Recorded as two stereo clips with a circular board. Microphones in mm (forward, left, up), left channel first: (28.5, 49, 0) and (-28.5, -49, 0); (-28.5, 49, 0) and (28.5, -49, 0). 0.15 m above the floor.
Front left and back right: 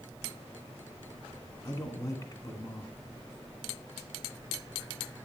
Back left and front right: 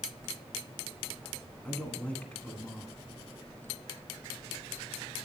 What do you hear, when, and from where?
1.6 s a man speaking: 55° left, 1.1 m